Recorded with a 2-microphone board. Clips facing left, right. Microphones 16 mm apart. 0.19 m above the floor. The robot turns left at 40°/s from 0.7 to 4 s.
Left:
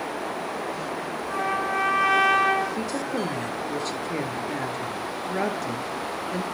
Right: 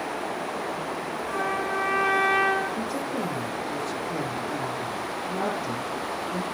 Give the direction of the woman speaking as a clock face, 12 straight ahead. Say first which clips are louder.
Left 1 dB; 8 o'clock.